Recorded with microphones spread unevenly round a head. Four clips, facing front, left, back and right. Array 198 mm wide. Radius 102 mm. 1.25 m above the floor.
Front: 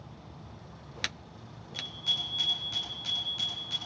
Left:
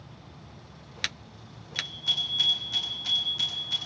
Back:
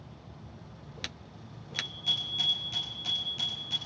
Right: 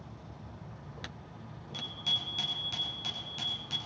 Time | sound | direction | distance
1.7 | a bicycle bell | 125° right | 8.5 m